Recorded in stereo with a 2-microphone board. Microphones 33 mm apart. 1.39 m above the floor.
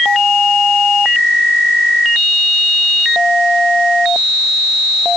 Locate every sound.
Only background noise.